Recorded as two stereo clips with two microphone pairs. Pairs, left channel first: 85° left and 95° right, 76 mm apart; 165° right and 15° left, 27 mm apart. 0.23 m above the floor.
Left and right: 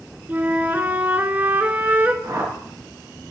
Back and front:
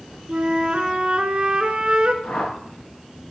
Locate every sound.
0.3 s a flute: 30° right, 0.8 m
2.2 s a whoosh: 130° right, 3 m